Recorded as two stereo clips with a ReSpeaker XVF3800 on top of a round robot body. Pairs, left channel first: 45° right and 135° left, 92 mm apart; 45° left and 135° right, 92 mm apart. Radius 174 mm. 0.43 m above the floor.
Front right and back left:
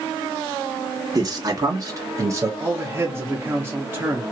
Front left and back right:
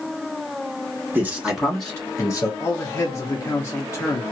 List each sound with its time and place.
1.1 s a man speaking: 165° left, 1.3 m; by 2.5 s 85° left, 1.3 m
2.6 s a man speaking: 85° left, 1.0 m